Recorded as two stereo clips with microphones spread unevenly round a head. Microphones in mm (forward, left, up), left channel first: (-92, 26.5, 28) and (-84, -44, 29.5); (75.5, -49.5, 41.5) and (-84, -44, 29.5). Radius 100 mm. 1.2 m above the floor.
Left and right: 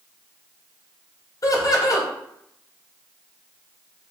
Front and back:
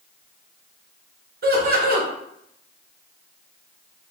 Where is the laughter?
135° left, 0.6 m.